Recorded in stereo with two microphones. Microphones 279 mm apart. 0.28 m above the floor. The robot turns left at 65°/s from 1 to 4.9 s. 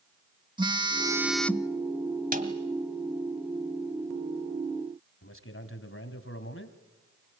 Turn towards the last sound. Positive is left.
turn(degrees=50)  # may be behind; listen again after turning